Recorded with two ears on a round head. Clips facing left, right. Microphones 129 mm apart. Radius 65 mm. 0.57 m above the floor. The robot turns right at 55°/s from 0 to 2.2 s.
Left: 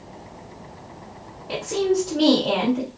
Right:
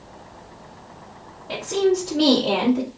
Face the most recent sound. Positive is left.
turn(degrees=-5)  # may be behind; listen again after turning